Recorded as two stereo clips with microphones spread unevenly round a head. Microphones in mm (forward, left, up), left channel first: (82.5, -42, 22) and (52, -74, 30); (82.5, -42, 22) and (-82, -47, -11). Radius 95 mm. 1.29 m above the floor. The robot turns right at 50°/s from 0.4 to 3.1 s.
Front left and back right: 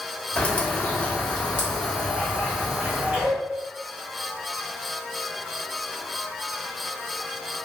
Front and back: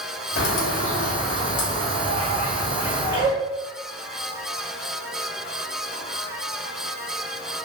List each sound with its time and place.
0.4 s a bird: 10° left, 0.6 m; by 3.3 s 145° left, 0.6 m